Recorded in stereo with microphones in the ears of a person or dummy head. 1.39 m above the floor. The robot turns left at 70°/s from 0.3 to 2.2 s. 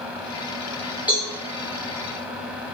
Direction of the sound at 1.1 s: 5° right (ahead or behind).